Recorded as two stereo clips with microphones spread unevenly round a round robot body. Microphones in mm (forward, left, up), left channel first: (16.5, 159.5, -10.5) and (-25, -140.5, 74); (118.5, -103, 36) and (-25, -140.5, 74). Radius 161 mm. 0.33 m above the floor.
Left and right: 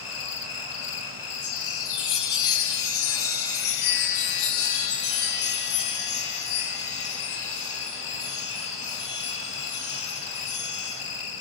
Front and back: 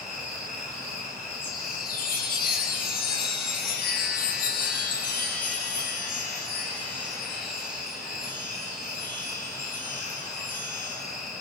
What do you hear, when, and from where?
0.0 s an insect: 75° left, 4 m
1.4 s a chime: 50° left, 4 m